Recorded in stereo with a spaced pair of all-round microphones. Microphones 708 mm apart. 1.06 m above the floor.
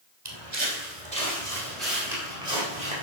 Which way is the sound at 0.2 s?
35° right (ahead or behind).